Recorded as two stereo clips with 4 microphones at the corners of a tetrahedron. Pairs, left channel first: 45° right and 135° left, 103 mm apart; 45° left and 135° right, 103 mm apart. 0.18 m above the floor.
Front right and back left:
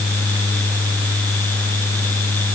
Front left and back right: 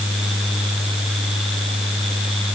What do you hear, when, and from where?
Only background noise.